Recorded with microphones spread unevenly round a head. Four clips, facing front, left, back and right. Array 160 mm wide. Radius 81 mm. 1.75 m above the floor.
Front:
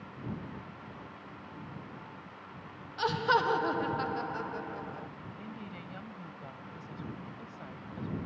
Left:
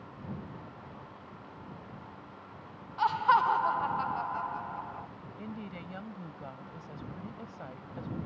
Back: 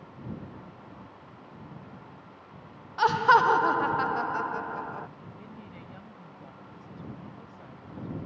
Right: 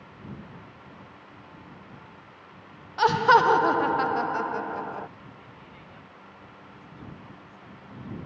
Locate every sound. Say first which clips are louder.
3.0 s laughter: right 7 dB, back 8 dB; 105° right
5.4 s a woman speaking: left 6 dB, front 4 dB; 70° left